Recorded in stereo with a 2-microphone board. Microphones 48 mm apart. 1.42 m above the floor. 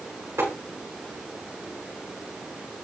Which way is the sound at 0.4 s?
70° right (ahead or behind).